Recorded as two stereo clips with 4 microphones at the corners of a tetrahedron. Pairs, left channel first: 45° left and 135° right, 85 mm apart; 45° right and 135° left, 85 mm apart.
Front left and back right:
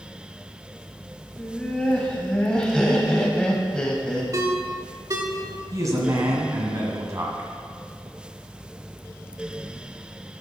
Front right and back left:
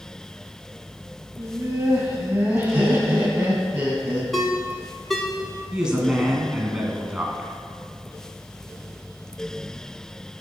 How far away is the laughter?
About 1.2 m.